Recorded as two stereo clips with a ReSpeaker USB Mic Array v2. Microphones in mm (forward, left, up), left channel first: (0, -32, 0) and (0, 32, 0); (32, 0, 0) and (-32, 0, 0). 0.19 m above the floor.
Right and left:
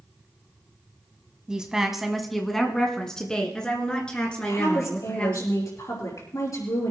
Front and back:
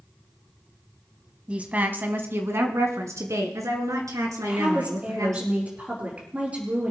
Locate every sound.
1.5 s a woman speaking: 145° left, 1.2 m; by 5.4 s 160° right, 3.5 m
4.4 s a woman speaking: 115° right, 4.5 m